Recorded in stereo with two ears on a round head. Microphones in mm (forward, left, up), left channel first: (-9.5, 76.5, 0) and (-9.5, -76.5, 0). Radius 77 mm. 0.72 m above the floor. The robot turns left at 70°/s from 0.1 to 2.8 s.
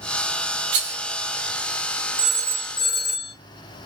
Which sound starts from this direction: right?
A rattle, at 0.7 s.